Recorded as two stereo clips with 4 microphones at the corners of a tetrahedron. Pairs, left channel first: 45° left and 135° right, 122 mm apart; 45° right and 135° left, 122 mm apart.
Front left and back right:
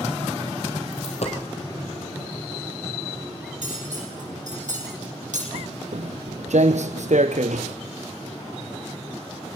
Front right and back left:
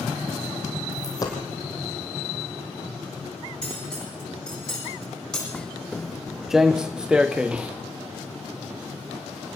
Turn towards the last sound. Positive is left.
turn(degrees=-145)